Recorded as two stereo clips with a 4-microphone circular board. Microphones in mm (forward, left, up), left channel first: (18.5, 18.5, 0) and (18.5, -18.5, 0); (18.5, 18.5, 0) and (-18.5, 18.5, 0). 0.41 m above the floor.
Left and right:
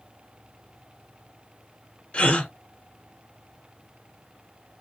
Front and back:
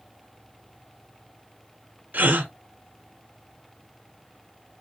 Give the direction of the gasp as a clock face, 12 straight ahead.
7 o'clock.